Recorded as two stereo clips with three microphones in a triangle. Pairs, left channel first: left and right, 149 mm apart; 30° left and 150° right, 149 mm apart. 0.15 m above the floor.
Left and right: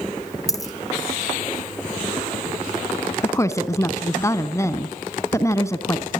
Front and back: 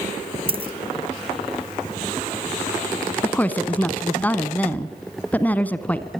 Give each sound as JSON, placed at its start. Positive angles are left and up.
{"t": 0.5, "sound": "a dropped coin", "azimuth_deg": 155, "distance_m": 1.4}
{"t": 3.2, "sound": "a woman speaking", "azimuth_deg": 85, "distance_m": 1.2}